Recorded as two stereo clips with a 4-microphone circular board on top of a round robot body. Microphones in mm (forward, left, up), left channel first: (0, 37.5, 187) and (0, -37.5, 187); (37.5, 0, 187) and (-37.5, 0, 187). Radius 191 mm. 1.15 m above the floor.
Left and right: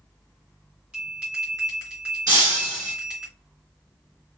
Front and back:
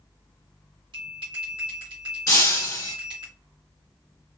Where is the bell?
165° right, 1.4 m.